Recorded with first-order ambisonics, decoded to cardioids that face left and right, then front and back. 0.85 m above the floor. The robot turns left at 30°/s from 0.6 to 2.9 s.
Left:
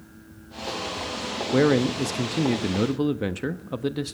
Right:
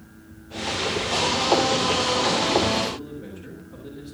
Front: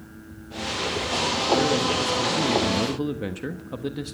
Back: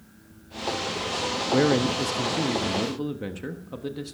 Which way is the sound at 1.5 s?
115° left.